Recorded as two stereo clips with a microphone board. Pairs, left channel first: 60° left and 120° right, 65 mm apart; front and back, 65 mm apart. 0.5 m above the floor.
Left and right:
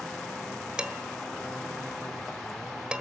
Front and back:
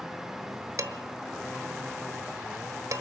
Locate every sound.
0.8 s dishes clattering: 165° left, 1.4 m